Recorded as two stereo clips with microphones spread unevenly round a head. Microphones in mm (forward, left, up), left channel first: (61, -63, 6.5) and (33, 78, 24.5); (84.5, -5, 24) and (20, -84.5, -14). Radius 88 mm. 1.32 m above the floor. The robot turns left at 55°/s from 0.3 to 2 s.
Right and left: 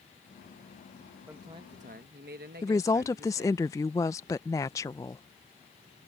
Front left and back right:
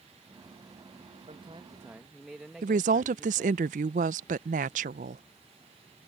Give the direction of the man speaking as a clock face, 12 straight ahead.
6 o'clock.